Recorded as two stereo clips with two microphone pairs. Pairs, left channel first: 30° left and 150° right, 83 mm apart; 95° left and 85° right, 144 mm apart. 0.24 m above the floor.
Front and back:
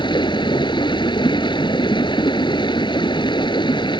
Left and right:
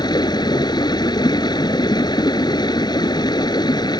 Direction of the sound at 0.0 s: 35° left.